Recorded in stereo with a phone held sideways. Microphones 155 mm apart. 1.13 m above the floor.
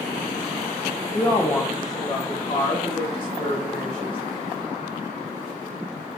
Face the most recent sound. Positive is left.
turn(degrees=35)  # may be behind; listen again after turning